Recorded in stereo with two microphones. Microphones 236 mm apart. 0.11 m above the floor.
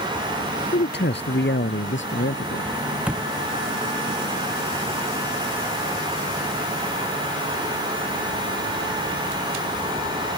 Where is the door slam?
5° right (ahead or behind).